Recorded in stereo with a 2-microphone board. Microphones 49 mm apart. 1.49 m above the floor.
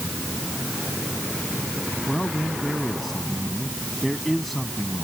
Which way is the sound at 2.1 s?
5° left (ahead or behind).